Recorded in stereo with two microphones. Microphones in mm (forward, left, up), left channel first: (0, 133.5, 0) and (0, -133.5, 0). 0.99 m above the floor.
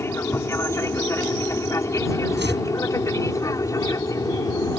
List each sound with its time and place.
0.0 s an aircraft: 10° left (ahead or behind)
2.4 s chopping: 40° right (ahead or behind)